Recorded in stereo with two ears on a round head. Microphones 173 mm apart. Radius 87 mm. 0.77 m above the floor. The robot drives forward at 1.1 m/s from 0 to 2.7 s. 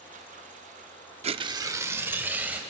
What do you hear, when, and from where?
1.2 s tearing paper: 35° right (ahead or behind), 0.5 m; by 2.6 s 10° right (ahead or behind), 1.9 m